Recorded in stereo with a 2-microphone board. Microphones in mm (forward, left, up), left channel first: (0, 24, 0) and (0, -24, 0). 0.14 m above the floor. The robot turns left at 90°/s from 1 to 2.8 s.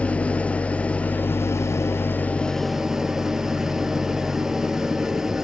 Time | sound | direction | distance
0.0 | an engine running | 150° left | 1.1 m